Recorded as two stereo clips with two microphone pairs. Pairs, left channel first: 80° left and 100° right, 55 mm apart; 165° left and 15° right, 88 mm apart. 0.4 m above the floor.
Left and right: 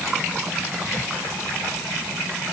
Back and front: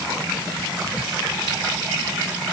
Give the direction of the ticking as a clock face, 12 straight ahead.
I don't hear ticking.